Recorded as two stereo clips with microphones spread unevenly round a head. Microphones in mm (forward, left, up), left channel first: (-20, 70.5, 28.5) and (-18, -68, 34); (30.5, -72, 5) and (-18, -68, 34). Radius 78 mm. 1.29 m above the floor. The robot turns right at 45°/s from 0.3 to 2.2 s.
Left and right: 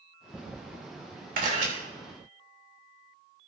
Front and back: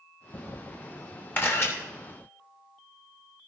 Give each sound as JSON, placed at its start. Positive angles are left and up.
{"t": 1.4, "sound": "a camera shutter", "azimuth_deg": -55, "distance_m": 3.0}